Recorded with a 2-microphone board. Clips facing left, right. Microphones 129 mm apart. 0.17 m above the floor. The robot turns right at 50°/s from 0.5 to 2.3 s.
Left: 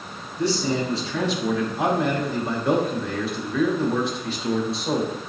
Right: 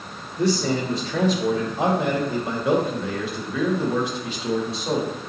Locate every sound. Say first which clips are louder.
0.4 s a man speaking: right 1 dB; 110° right, 2.5 m; by 5.1 s 20° right, 2.5 m